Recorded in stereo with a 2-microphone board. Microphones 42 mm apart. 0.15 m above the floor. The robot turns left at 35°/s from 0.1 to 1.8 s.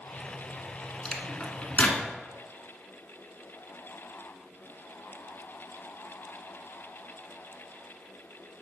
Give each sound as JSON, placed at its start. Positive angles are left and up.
{"t": 1.1, "sound": "a microwave", "side_deg": 25, "distance_m": 1.3}